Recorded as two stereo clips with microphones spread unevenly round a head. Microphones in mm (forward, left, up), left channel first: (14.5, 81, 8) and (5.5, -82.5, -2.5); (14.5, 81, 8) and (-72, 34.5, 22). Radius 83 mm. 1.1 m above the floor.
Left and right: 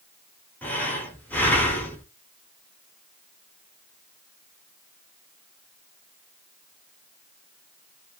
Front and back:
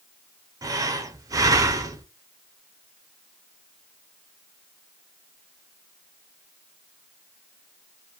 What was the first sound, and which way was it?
Breathing, 165° left.